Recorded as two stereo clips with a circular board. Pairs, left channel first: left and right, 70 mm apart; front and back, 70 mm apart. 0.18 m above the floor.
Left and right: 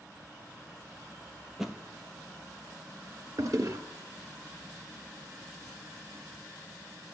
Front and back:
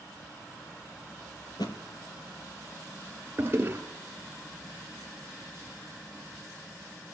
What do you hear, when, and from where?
1.5 s a thud: 5° right, 1.3 m
3.4 s a toilet flushing: 125° right, 1.2 m